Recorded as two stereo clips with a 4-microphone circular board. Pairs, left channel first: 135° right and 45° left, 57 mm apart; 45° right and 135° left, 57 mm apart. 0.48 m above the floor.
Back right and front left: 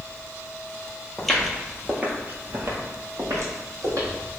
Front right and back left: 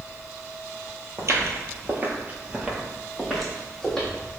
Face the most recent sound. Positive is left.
turn(degrees=30)